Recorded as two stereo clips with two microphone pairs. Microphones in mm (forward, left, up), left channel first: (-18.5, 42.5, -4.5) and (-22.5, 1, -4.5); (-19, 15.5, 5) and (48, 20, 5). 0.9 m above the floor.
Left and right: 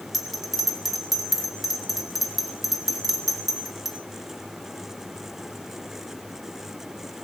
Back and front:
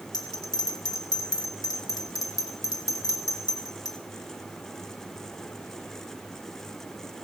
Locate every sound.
0.1 s a bell: straight behind, 2 m